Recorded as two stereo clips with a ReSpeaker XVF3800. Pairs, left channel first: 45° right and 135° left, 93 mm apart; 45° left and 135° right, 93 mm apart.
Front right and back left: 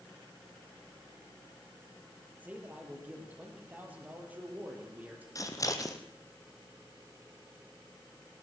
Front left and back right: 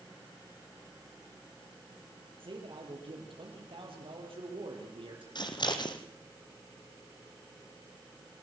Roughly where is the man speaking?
Behind right.